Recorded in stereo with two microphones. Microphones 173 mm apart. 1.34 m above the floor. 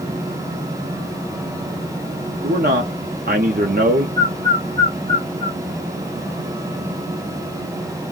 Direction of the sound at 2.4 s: 60° right (ahead or behind).